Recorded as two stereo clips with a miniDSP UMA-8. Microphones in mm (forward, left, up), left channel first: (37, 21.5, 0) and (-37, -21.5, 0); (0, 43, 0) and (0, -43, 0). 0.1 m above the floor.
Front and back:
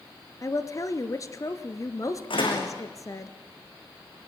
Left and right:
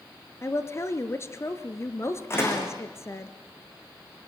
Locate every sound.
0.4 s a woman speaking: 55° left, 1.4 m
2.3 s a door slam: 30° left, 5.5 m